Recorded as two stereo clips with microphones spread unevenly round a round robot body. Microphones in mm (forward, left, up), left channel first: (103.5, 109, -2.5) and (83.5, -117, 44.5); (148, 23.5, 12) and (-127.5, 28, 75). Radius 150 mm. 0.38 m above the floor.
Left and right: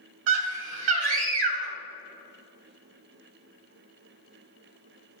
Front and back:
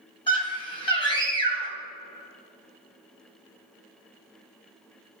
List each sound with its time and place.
0.3 s a scream: 70° right, 2.5 m